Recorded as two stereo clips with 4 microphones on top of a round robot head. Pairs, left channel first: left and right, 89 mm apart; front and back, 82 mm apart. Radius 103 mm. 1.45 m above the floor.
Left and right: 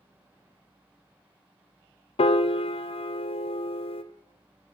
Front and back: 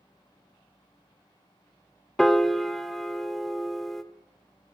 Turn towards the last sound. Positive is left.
turn(degrees=85)